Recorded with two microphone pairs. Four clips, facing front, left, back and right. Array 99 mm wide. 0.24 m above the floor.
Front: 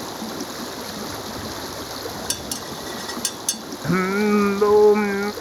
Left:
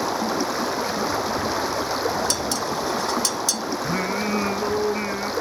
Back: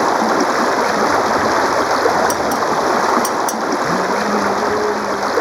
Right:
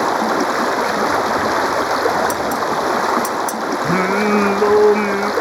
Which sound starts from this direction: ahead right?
Singing, at 3.8 s.